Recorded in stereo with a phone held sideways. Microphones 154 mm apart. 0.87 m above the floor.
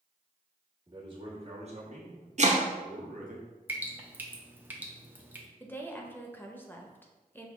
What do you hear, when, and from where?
0.9 s a man speaking: 30° right (ahead or behind), 1.4 m; by 3.4 s 70° right (ahead or behind), 1.1 m
2.4 s chopping: 50° right (ahead or behind), 0.5 m
3.7 s dripping: 10° right (ahead or behind), 0.6 m
5.6 s a woman speaking: 10° left (ahead or behind), 0.6 m